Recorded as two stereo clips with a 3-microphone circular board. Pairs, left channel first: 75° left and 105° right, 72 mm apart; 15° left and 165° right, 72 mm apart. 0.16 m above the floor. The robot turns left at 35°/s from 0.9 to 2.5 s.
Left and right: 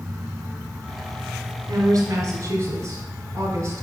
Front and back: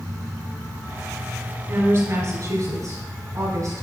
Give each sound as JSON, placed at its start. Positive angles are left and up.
{"t": 1.7, "sound": "a woman speaking", "azimuth_deg": -115, "distance_m": 2.0}